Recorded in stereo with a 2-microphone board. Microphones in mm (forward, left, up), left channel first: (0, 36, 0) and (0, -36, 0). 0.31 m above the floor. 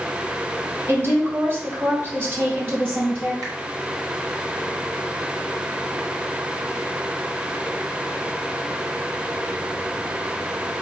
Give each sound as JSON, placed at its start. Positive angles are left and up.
{"t": 0.9, "sound": "a woman speaking", "side_deg": -40, "distance_m": 1.6}
{"t": 3.4, "sound": "a finger snap", "side_deg": -60, "distance_m": 1.7}